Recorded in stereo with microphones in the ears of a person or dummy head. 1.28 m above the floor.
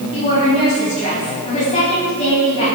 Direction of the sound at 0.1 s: 35° left (ahead or behind).